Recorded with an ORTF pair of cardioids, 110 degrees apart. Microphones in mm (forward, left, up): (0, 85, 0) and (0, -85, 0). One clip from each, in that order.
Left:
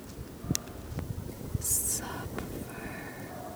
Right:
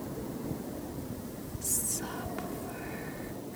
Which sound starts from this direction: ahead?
Whispering, at 1.6 s.